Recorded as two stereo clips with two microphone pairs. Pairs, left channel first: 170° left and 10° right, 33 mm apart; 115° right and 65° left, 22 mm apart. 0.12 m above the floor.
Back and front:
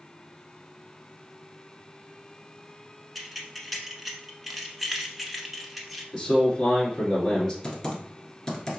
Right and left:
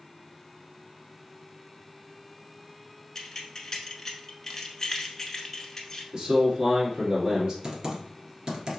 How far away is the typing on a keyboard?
About 1.2 m.